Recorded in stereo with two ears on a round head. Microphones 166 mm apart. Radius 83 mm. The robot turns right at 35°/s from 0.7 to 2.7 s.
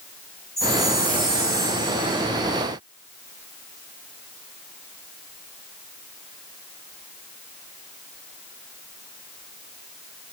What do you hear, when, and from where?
0.6 s a chime: 175° left, 5 m; by 2.2 s 130° right, 5 m